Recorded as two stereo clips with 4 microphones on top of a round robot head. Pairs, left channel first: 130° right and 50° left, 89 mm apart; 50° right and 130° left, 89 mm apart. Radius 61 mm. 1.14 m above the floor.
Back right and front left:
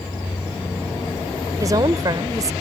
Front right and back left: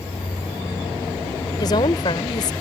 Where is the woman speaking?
5° right.